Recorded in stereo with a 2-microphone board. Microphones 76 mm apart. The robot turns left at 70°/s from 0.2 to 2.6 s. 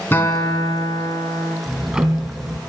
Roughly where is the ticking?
Ahead.